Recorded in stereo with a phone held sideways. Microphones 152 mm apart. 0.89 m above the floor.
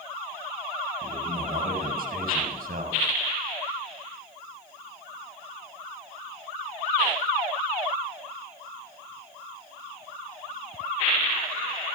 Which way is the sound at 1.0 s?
85° right.